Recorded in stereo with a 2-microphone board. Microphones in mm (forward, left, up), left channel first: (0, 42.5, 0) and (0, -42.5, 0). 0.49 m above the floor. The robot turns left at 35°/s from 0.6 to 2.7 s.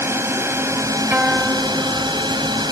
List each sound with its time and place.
0.0 s a drone: 35° right; by 2.7 s 110° right
1.1 s a guitar: 160° right; by 2.2 s 160° left